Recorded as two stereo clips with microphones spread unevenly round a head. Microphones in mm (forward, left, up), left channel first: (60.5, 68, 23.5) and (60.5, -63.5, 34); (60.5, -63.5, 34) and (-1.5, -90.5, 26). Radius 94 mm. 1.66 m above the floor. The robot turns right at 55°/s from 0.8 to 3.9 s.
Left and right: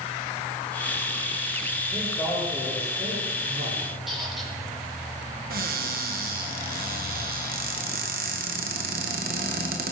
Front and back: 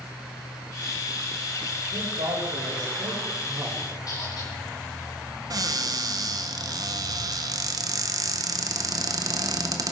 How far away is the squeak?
About 4 m.